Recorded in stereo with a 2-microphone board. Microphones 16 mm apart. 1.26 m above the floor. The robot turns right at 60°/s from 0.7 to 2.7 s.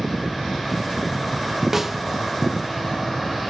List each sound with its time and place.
1.7 s a snare drum: 20° right (ahead or behind), 0.5 m; by 2.0 s 5° right (ahead or behind), 0.5 m